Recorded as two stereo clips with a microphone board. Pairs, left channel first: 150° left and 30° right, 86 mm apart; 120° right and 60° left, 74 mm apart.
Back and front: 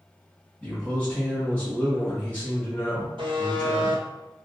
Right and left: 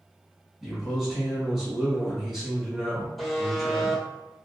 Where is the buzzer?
30° right, 0.7 m.